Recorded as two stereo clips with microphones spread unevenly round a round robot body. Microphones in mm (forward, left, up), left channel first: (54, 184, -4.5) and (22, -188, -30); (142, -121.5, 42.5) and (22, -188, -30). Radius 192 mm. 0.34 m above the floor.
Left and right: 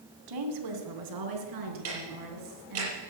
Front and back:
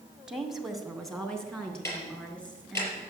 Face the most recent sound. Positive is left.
turn(degrees=-40)